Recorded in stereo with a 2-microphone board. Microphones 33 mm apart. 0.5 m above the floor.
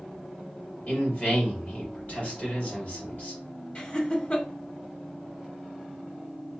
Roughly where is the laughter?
Left.